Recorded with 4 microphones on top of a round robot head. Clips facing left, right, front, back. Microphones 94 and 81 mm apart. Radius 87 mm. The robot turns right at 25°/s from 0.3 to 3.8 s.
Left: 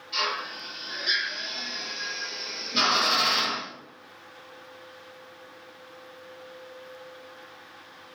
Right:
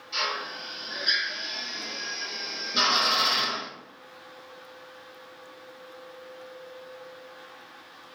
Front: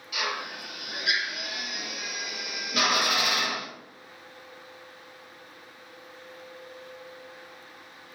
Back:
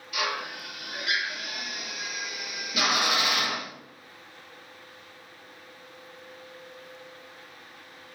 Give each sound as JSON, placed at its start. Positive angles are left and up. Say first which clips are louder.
{"t": 0.1, "sound": "a drill", "louder": "left 1 dB, back 1 dB", "azimuth_deg": -25, "distance_m": 1.1}